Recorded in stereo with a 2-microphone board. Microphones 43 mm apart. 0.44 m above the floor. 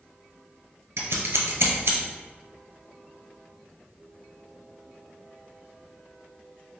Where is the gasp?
No gasp in this recording.